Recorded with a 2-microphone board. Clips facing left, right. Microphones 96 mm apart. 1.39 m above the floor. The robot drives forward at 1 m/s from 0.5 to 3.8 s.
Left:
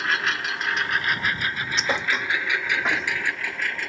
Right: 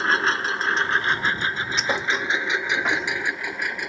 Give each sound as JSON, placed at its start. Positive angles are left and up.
{"t": 0.0, "sound": "a lawn mower", "side_deg": -35}
{"t": 1.8, "sound": "a thud", "side_deg": 0}